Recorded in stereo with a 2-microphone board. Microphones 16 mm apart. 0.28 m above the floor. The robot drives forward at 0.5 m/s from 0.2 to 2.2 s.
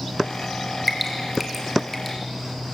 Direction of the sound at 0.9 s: Centre (ahead or behind).